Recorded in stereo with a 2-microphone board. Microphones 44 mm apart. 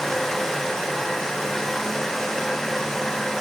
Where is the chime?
I don't hear a chime.